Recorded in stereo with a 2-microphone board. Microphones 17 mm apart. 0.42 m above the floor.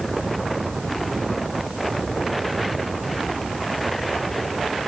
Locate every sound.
Only background noise.